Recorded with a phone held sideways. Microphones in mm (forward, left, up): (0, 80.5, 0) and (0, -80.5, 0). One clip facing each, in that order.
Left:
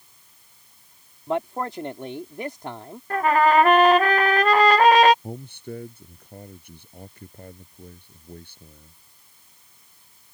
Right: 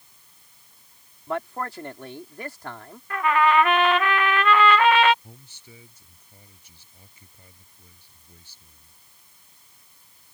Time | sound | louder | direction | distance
1.3 | a man speaking | left 4 dB | 20° left (ahead or behind) | ?
3.1 | a trumpet | left 3 dB | 40° left (ahead or behind) | ?
5.2 | a man speaking | left 15 dB | 60° left (ahead or behind) | ?